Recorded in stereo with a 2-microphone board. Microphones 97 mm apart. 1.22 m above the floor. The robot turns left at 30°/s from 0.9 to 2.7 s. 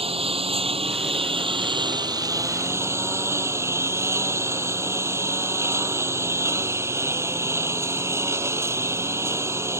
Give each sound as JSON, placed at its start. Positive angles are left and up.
{"t": 0.0, "sound": "a lawn mower", "azimuth_deg": -100}